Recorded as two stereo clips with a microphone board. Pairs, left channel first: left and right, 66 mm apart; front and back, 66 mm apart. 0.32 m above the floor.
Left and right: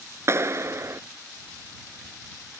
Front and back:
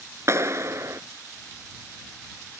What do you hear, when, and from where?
0.3 s a clap: 135° right